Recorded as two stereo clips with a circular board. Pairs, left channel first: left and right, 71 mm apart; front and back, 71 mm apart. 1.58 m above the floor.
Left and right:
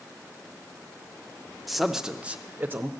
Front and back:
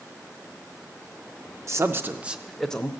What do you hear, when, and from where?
1.7 s a man speaking: straight behind, 0.7 m; by 2.9 s 60° right, 0.6 m